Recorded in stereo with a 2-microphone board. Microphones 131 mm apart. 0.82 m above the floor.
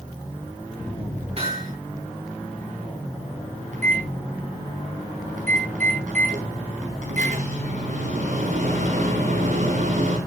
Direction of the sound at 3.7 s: 70° right (ahead or behind).